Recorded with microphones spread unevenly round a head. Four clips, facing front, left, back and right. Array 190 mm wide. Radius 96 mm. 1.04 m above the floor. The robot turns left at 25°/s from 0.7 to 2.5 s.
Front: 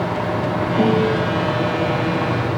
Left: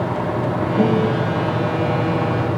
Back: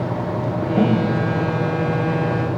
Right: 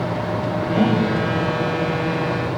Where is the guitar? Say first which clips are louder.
Left 1 dB, front 1 dB; 160° right, 3 m; by 1.1 s 170° right, 3 m.